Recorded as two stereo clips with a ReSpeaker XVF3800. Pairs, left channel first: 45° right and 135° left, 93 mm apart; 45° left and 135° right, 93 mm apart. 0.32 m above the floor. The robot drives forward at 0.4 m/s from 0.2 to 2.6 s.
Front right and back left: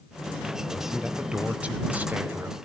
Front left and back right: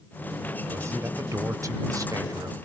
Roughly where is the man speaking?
Behind right.